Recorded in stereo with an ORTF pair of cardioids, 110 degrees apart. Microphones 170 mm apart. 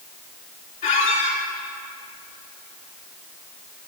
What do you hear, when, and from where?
0.8 s a squeak: 50° left, 3.5 m